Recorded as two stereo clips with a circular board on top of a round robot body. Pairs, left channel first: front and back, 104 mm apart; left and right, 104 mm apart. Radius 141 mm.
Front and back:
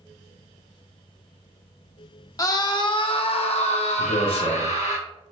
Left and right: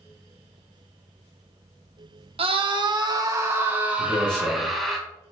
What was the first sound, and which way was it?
A scream, 60° right.